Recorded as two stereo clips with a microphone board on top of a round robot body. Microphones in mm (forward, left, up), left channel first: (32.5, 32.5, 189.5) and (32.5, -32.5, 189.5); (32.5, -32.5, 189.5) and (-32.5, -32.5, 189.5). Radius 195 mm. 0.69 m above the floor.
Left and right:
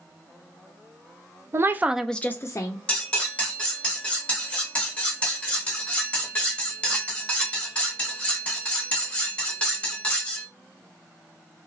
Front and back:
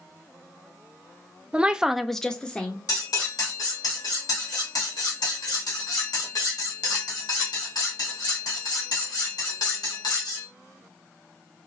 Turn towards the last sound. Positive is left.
turn(degrees=20)